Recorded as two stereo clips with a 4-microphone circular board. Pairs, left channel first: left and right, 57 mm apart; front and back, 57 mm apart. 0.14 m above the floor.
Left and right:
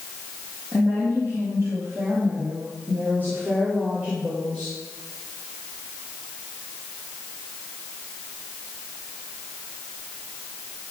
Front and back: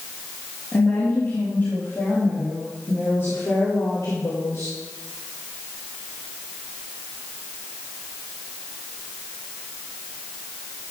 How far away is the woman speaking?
About 4 m.